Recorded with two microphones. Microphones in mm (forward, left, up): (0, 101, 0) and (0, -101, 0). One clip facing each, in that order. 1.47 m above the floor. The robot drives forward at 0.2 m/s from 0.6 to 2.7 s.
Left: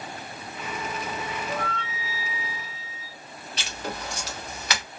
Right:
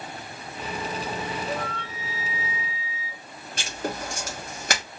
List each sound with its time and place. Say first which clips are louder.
1.5 s a flute: even; 60° right (ahead or behind), 0.7 m; by 3.2 s 50° right (ahead or behind), 0.8 m
3.6 s writing: right 4 dB; 50° right (ahead or behind), 1.0 m